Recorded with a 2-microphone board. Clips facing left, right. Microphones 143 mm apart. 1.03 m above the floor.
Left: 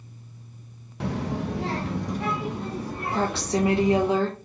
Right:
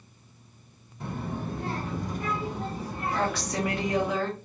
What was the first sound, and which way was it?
A child speaking, 70° left (ahead or behind).